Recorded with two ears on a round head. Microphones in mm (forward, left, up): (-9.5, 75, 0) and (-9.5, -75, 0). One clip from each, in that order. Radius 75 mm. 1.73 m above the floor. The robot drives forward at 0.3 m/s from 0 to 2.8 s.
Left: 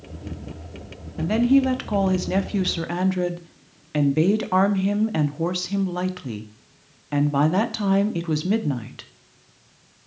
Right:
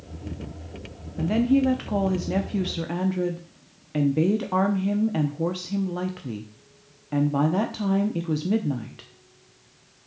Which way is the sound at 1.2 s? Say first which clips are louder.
Left 2 dB; 25° left (ahead or behind).